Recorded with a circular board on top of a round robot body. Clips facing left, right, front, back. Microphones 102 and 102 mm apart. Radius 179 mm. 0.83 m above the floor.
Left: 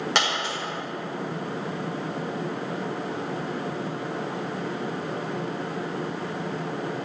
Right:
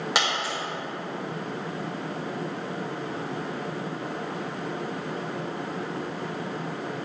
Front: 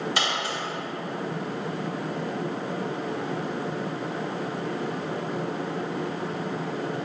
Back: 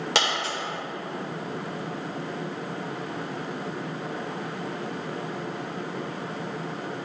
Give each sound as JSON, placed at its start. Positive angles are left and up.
{"t": 0.1, "sound": "a dropped coin", "azimuth_deg": -175, "distance_m": 1.9}